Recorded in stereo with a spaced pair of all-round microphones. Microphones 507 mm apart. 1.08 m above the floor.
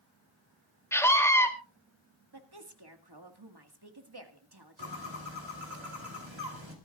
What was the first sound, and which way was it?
A scream, 5° left (ahead or behind).